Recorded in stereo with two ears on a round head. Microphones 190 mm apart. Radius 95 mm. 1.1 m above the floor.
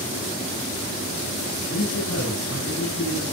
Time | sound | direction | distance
1.5 | a man speaking | 75° left (ahead or behind) | 9.5 m